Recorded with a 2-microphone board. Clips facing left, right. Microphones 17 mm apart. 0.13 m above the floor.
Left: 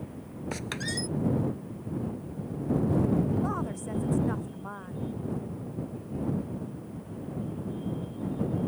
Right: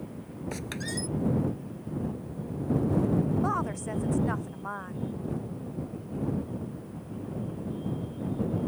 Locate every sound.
0.5 s a squeak: 15° left (ahead or behind)
3.4 s a woman speaking: 25° right (ahead or behind)